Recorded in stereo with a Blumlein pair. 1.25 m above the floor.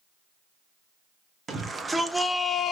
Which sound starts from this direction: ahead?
A shout, at 1.5 s.